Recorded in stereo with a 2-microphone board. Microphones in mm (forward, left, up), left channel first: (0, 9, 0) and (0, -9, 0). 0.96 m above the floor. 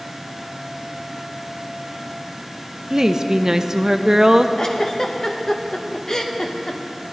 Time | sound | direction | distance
2.9 | a woman speaking | 25° right (ahead or behind) | 0.6 m
4.6 | a giggle | 40° left (ahead or behind) | 0.9 m